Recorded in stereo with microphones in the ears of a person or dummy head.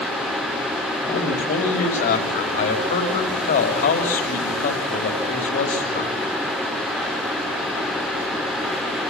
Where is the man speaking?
40° left (ahead or behind), 3 m.